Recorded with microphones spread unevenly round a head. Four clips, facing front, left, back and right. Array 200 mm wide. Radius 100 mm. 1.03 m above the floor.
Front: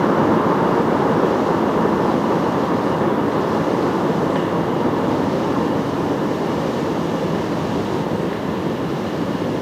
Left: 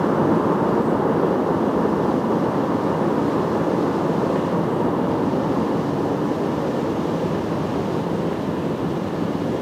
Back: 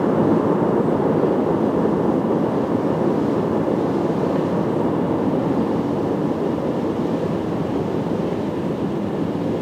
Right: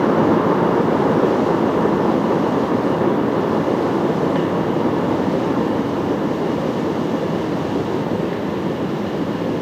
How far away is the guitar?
I don't hear a guitar.